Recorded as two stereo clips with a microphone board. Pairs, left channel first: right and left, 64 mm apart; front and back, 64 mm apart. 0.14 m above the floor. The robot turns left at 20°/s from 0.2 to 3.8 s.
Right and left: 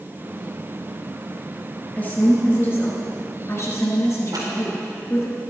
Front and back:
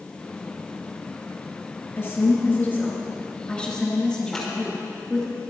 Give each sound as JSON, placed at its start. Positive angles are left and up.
{"t": 2.0, "sound": "a woman speaking", "azimuth_deg": -40, "distance_m": 2.5}
{"t": 4.3, "sound": "scissors", "azimuth_deg": 80, "distance_m": 4.5}